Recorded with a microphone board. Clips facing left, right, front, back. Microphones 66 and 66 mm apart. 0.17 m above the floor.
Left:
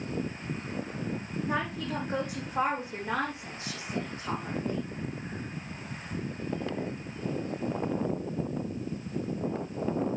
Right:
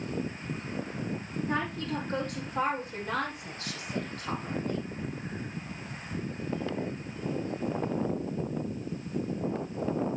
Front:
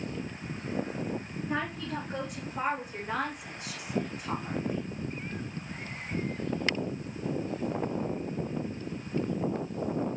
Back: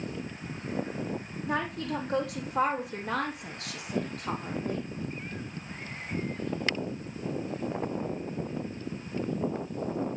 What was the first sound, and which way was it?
A woman speaking, 175° left.